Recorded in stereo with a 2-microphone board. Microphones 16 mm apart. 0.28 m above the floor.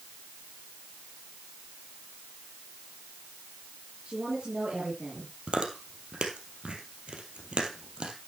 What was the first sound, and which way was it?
A woman speaking, 75° right (ahead or behind).